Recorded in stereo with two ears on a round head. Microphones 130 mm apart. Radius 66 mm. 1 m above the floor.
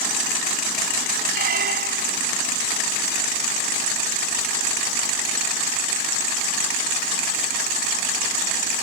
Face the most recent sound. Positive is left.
turn(degrees=-70)  # may be behind; listen again after turning